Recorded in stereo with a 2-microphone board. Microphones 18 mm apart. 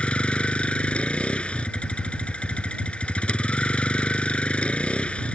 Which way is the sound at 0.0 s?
70° left (ahead or behind).